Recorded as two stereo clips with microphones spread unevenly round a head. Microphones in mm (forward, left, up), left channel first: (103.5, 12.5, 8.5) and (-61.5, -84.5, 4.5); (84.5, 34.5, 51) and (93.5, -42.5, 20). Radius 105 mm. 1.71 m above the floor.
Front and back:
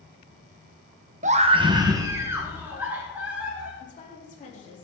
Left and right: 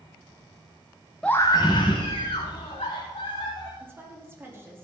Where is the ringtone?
I don't hear a ringtone.